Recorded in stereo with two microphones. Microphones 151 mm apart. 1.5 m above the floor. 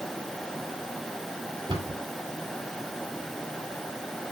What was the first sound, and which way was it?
A cupboard door, 35° right (ahead or behind).